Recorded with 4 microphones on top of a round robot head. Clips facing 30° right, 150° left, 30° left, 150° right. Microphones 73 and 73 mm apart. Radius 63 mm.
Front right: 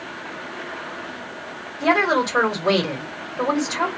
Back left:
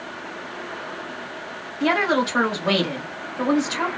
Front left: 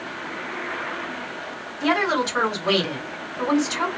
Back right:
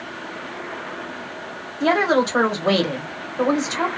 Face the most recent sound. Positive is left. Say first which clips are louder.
# front right 2 dB, back right 4 dB
turn(degrees=-100)